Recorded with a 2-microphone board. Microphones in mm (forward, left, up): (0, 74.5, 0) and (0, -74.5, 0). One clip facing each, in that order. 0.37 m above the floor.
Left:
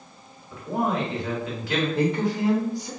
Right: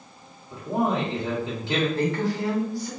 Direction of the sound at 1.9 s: 20° left (ahead or behind).